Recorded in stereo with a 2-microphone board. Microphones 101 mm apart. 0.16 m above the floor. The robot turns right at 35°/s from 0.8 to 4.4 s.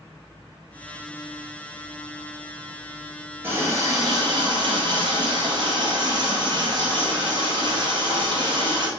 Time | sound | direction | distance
3.4 | a running tap | 155° right | 1.9 m